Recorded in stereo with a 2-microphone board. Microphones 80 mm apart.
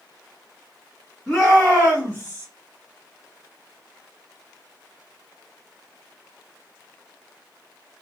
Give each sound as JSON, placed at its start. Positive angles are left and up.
{"t": 1.3, "sound": "a shout", "side_deg": 5, "distance_m": 1.5}